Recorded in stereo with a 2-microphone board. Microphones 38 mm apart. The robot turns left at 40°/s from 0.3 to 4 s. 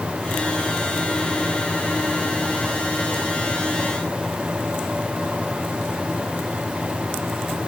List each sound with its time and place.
Only background noise.